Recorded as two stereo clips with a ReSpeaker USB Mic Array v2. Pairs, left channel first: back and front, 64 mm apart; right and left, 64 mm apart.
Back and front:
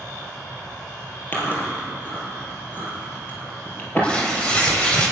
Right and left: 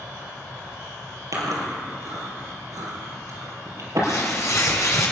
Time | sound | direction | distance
1.3 | chewing | 120° left | 4 m
4.0 | tearing paper | 110° right | 2.5 m